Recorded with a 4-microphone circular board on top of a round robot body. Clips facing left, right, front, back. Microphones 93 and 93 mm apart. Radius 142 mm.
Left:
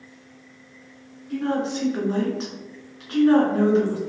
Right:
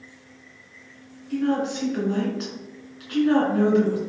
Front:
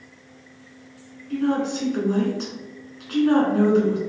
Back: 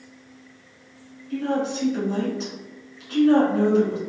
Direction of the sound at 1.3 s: 30° left.